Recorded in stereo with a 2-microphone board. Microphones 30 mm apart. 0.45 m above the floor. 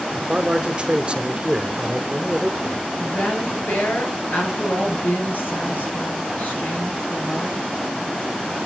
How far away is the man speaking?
About 1.1 m.